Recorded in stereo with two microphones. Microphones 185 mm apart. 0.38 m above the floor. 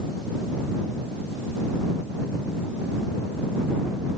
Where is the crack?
I don't hear a crack.